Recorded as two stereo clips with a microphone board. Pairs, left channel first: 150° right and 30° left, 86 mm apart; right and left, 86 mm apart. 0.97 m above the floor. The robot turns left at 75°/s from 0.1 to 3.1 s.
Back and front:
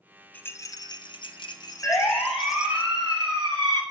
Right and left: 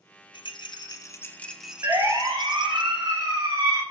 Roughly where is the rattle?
Right.